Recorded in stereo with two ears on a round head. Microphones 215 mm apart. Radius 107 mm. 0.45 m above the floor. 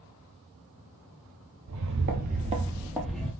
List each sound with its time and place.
1.7 s footsteps: 60° right (ahead or behind), 0.7 m; by 3.3 s 5° left (ahead or behind), 0.8 m